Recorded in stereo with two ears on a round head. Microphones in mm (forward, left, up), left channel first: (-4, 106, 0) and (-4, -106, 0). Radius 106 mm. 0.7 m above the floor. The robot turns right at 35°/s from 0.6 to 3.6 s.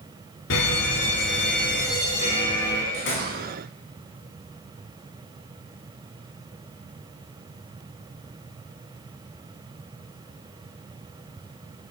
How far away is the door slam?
About 5.5 m.